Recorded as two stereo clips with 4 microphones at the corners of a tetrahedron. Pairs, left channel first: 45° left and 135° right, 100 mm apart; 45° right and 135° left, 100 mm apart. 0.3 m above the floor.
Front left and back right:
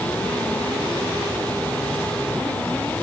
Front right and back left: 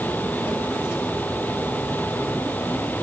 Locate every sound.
Only background noise.